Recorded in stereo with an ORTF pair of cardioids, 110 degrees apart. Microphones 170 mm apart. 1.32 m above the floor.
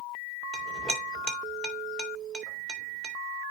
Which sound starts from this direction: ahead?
A clink, at 0.5 s.